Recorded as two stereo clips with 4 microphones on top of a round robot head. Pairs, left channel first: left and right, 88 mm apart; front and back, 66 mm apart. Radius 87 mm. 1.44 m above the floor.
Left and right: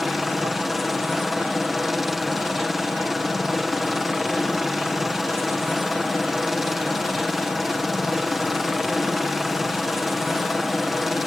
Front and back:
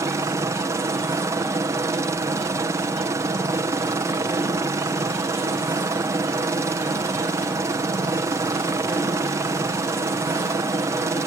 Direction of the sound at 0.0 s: Straight behind.